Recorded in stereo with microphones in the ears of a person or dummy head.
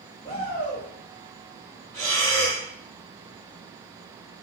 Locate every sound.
0.2 s a shout: 25° left (ahead or behind), 2.5 m
1.9 s breathing: 10° left (ahead or behind), 4 m